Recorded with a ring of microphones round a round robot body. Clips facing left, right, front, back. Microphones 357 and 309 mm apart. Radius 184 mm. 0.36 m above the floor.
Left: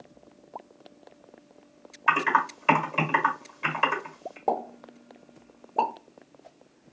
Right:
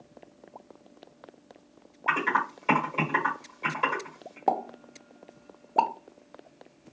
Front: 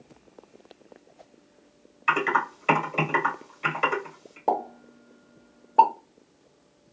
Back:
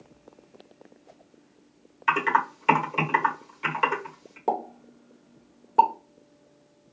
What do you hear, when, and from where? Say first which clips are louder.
2.1 s typing on a keyboard: left 2 dB, front 1 dB; 125° left, 1.8 m
4.5 s a pop: left 1 dB, front 1 dB; 115° right, 0.8 m